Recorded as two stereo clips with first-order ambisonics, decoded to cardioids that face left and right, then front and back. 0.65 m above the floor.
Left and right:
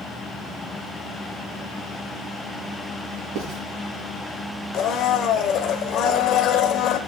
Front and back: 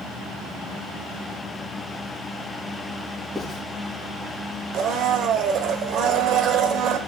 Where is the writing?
95° right, 3.5 m.